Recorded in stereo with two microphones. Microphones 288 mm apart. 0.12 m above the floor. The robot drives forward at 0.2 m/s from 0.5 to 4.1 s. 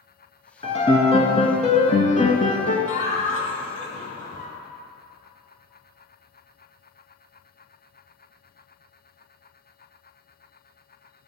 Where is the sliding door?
I don't hear a sliding door.